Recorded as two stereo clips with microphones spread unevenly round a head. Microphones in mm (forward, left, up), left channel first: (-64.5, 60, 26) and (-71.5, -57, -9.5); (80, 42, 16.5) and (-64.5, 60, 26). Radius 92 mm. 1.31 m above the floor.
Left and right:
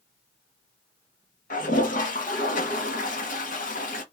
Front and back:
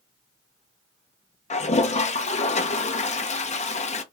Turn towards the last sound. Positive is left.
turn(degrees=35)